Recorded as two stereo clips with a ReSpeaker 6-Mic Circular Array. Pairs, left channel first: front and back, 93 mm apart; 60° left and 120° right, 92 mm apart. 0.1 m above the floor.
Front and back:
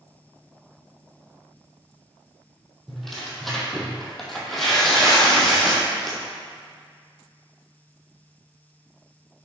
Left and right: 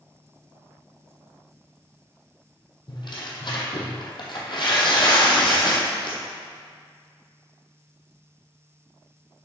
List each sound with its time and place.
2.9 s tearing paper: 85° left, 1.9 m